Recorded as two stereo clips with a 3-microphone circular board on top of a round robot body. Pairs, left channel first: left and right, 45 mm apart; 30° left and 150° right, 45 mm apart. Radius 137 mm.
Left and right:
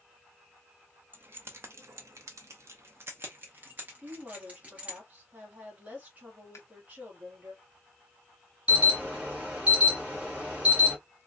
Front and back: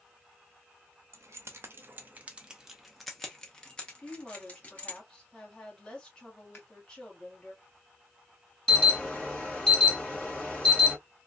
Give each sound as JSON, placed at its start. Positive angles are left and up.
{"t": 1.1, "sound": "keys jangling", "azimuth_deg": -135, "distance_m": 0.8}
{"t": 4.0, "sound": "a woman speaking", "azimuth_deg": -40, "distance_m": 2.0}
{"t": 6.5, "sound": "scissors", "azimuth_deg": 70, "distance_m": 0.5}
{"t": 8.7, "sound": "an alarm", "azimuth_deg": -40, "distance_m": 2.5}